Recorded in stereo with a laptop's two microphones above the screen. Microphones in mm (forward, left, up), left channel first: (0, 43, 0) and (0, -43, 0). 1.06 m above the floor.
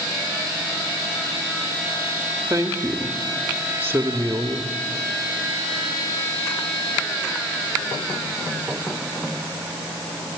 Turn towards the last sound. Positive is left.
turn(degrees=-30)  # may be behind; listen again after turning